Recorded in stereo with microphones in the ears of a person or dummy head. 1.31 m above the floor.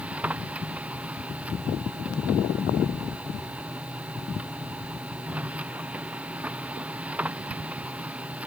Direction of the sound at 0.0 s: 10° right (ahead or behind).